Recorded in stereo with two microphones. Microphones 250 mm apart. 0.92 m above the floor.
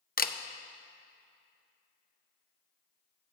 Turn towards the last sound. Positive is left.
turn(degrees=35)  # may be behind; listen again after turning